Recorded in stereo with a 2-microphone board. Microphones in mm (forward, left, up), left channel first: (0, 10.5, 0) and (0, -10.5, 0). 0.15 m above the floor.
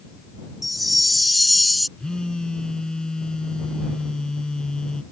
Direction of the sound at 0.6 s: Centre (ahead or behind).